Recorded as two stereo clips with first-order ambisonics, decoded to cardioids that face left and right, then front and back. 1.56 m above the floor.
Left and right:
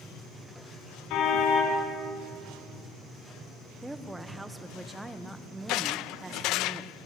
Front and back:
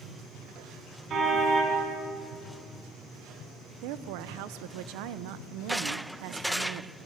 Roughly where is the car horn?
Behind left.